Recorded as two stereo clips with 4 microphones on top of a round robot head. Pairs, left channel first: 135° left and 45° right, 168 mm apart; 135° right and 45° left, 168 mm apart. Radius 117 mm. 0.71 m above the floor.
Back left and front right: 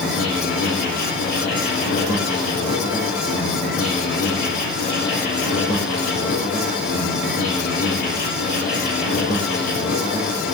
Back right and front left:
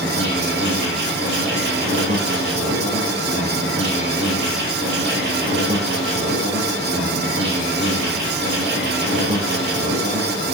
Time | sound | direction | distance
0.0 | an insect | 100° left | 8.5 m